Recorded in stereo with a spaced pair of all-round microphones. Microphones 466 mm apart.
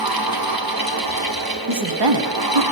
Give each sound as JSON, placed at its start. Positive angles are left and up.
{"t": 0.0, "sound": "a fan", "side_deg": -50, "distance_m": 1.2}
{"t": 1.7, "sound": "a woman speaking", "side_deg": -65, "distance_m": 0.9}